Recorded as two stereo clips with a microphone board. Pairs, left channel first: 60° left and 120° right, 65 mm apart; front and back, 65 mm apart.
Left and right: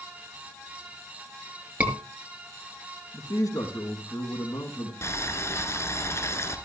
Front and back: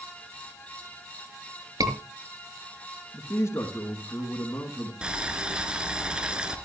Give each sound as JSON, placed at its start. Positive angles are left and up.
{"t": 1.8, "sound": "a scream", "azimuth_deg": 170, "distance_m": 6.0}
{"t": 3.1, "sound": "a man speaking", "azimuth_deg": 45, "distance_m": 4.0}
{"t": 5.0, "sound": "boiling", "azimuth_deg": 105, "distance_m": 3.5}